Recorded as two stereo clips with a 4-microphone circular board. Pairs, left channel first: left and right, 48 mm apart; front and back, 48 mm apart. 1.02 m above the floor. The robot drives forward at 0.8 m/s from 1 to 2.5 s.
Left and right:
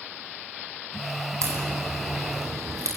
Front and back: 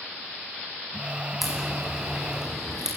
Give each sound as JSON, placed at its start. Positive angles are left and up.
{"t": 1.4, "sound": "a crack", "azimuth_deg": -90, "distance_m": 9.5}